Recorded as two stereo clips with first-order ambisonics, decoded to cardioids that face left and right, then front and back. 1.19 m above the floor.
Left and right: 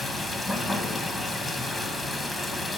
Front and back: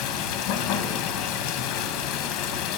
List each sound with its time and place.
0.0 s running water: straight ahead, 0.8 m